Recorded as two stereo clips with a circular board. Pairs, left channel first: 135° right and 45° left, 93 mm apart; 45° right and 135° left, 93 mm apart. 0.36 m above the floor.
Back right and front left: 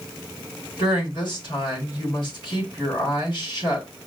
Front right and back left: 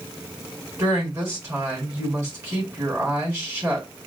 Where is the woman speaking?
165° right, 3.5 m.